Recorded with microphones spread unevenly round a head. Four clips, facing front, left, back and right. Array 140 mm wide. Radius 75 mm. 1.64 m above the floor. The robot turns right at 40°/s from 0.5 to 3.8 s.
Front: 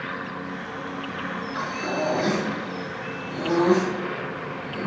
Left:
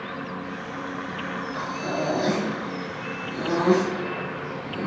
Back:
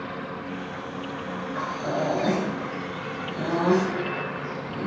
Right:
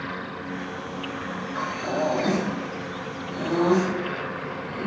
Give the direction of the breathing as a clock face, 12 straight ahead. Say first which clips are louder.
Right 3 dB, even; 1 o'clock.